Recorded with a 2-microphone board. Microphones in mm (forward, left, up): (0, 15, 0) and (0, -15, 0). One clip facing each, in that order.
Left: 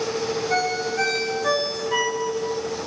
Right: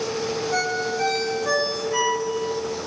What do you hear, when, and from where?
0.5 s a ringtone: 75° left (ahead or behind), 9.5 m